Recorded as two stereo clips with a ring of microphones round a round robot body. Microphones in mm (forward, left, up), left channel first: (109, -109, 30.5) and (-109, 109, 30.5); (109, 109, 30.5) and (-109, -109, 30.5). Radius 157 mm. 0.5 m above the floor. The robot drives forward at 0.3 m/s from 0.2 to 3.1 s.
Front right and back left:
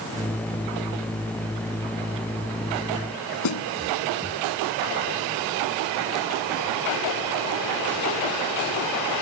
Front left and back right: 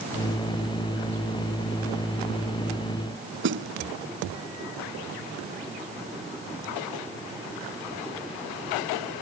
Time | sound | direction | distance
3.4 | a snare drum | 80° right | 1.9 m